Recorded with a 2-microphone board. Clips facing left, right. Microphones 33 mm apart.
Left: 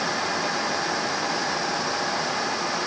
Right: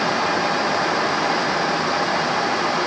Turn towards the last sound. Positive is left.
No sound to turn to.